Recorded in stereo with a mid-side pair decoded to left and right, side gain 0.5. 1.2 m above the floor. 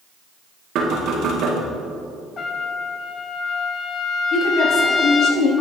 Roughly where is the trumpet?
Ahead left.